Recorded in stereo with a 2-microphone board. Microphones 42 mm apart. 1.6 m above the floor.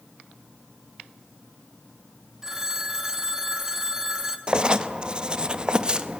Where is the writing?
20° right (ahead or behind), 1.0 m.